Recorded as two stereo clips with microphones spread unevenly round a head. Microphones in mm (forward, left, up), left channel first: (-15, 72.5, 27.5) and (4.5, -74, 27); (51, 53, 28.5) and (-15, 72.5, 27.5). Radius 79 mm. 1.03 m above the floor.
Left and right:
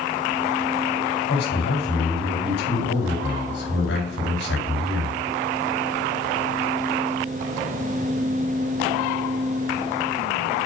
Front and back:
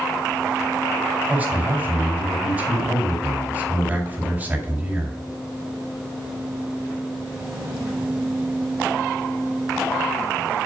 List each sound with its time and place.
1.3 s a man speaking: 95° left, 4 m